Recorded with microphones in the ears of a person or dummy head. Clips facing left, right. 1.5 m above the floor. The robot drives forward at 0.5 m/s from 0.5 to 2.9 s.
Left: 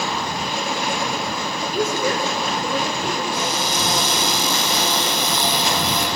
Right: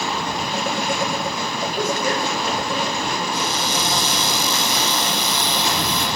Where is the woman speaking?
85° left, 7 m; by 3.2 s 80° left, 7 m.